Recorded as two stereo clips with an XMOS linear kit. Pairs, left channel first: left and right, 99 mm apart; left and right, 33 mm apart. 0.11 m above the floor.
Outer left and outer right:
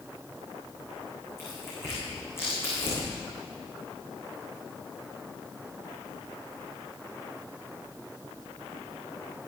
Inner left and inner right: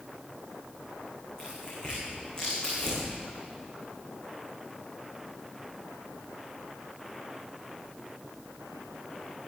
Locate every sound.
1.4 s tearing paper: 25° left (ahead or behind), 6.5 m